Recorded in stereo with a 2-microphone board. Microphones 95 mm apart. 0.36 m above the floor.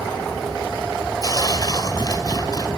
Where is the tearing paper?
45° left (ahead or behind), 1.3 m.